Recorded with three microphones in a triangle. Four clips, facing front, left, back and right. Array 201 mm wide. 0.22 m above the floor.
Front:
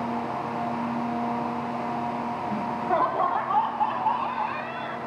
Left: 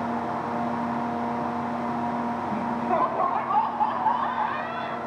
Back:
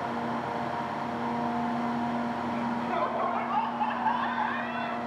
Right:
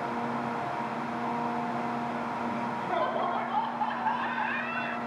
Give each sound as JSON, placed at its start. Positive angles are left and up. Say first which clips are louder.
{"t": 2.5, "sound": "laughter", "louder": "left 7 dB, front 7 dB", "azimuth_deg": 35, "distance_m": 2.0}